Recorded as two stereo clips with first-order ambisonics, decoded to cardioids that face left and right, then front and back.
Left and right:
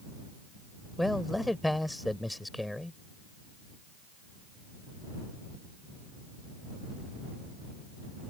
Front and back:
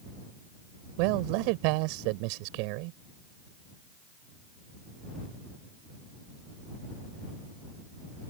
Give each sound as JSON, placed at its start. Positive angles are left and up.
{"t": 1.0, "sound": "a man speaking", "azimuth_deg": 175}